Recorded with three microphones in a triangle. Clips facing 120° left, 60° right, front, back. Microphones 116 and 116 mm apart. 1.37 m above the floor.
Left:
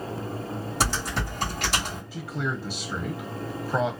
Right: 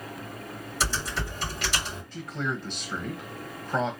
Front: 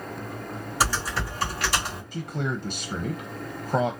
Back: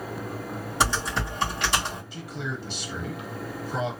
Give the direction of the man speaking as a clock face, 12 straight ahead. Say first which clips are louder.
Left 1 dB, front 4 dB; 11 o'clock.